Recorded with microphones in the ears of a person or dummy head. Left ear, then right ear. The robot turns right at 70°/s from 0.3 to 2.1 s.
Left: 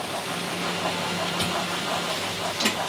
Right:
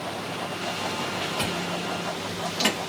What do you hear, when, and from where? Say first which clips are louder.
1.4 s chewing: left 2 dB; 50° right (ahead or behind), 1.3 m; by 2.8 s 65° right (ahead or behind), 1.3 m